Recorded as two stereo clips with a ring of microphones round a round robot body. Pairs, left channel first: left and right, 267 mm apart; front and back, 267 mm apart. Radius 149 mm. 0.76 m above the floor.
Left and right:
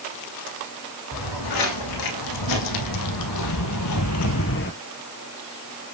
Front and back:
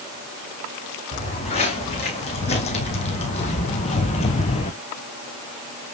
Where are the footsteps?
70° left, 3 m; by 4.7 s 60° left, 0.9 m.